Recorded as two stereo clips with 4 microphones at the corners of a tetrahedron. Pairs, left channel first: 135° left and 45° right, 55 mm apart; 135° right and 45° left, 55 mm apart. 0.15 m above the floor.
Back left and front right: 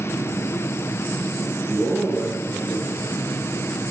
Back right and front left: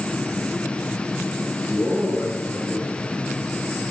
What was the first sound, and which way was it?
A man speaking, 145° right.